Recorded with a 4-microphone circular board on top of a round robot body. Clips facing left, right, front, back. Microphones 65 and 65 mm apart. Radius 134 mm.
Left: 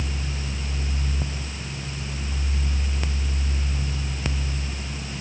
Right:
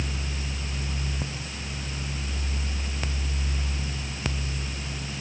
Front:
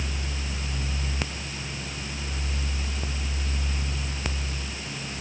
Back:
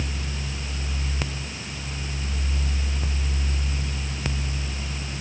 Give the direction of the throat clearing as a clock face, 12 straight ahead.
No throat clearing in this recording.